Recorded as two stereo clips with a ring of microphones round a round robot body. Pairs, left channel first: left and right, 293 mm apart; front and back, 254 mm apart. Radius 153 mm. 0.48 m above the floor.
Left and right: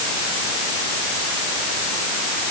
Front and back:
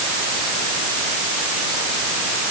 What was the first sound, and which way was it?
Only background noise.